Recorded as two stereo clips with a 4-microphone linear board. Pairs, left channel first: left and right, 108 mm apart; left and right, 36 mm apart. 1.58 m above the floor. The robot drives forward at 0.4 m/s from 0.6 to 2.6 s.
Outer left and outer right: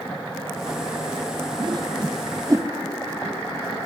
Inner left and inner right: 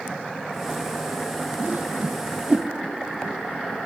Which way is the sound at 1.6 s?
45° right (ahead or behind).